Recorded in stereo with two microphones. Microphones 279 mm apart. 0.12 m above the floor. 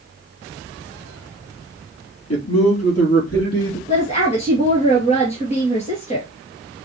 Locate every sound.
2.3 s a man speaking: 55° left (ahead or behind), 2.5 m; by 3.8 s 60° left (ahead or behind), 4 m
3.9 s a woman speaking: 25° left (ahead or behind), 2 m